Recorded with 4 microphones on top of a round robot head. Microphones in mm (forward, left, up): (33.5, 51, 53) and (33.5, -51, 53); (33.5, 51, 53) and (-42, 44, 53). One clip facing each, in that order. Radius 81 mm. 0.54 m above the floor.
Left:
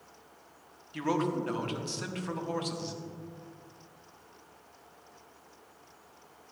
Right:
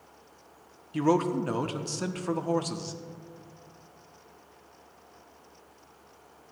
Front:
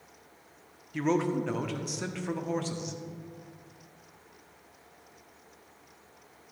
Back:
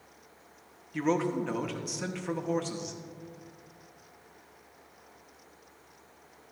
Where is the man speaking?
85° right, 0.8 m.